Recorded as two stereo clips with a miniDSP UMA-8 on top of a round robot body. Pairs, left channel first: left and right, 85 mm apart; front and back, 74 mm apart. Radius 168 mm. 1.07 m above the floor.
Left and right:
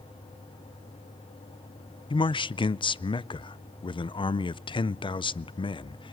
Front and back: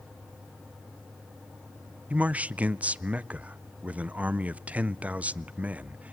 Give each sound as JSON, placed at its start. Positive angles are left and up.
{"t": 2.1, "sound": "a man speaking", "azimuth_deg": 110, "distance_m": 0.6}